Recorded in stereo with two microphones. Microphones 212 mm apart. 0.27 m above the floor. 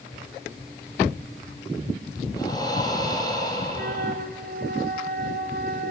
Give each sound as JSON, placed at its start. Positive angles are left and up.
{"t": 2.3, "sound": "breathing", "side_deg": 20, "distance_m": 4.0}
{"t": 3.7, "sound": "a flute", "side_deg": -50, "distance_m": 1.6}